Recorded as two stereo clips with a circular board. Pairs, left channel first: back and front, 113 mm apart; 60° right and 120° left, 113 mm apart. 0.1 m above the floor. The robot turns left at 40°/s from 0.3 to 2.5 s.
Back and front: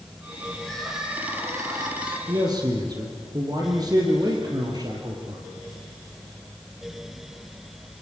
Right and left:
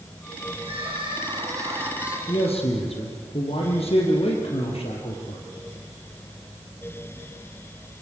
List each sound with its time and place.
0.6 s crying: 100° left, 5 m; by 2.2 s 35° left, 5 m
2.3 s a man speaking: 40° right, 3.5 m; by 5.4 s 50° right, 3.5 m